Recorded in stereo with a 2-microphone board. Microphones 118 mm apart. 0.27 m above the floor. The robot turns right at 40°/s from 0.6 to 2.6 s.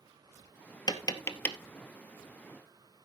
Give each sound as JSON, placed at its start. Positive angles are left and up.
{"t": 0.9, "sound": "tapping", "side_deg": 40, "distance_m": 1.0}